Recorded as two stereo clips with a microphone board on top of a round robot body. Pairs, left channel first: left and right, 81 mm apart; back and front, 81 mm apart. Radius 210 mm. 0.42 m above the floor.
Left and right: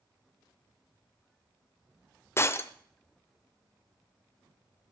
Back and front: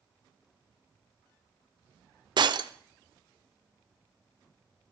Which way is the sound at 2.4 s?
30° left.